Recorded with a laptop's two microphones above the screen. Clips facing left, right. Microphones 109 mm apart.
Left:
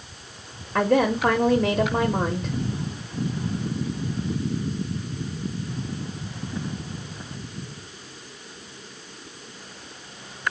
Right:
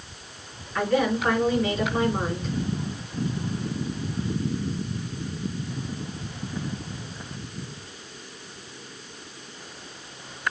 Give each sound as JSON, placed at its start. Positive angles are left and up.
{"t": 0.8, "sound": "a woman speaking", "side_deg": 50, "distance_m": 0.8}